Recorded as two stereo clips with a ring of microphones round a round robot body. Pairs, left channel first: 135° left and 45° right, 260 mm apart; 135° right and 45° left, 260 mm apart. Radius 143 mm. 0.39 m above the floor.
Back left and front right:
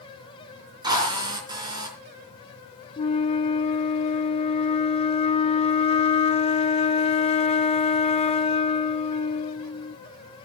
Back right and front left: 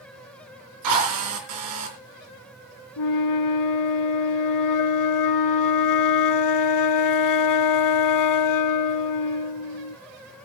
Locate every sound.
0.8 s a drill: 30° left, 4 m
3.0 s a flute: 155° right, 0.6 m